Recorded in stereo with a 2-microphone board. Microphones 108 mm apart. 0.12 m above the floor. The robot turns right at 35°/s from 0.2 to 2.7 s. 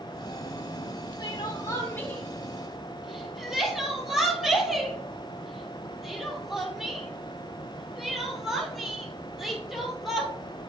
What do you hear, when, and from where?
1.2 s crying: 45° left (ahead or behind), 1.4 m; by 10.3 s centre (ahead or behind), 1.4 m